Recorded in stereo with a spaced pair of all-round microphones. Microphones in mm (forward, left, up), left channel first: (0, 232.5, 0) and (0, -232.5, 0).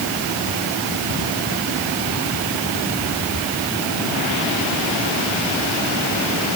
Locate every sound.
Only background noise.